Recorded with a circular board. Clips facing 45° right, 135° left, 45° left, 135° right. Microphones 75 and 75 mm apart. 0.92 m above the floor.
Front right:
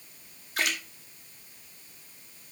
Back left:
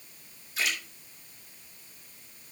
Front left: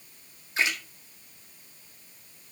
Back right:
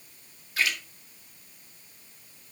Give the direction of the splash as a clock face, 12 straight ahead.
1 o'clock.